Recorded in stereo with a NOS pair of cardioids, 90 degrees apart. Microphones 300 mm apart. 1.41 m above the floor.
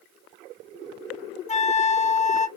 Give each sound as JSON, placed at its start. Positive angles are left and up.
{"t": 1.5, "sound": "a flute", "azimuth_deg": 25, "distance_m": 0.7}